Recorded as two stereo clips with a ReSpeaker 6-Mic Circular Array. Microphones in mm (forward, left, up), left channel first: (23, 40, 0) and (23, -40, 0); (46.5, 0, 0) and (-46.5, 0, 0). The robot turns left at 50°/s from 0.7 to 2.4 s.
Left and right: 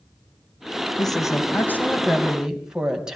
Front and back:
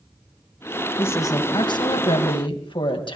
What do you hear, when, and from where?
1.0 s a woman speaking: 65° left, 2.5 m; by 3.2 s 10° right, 2.5 m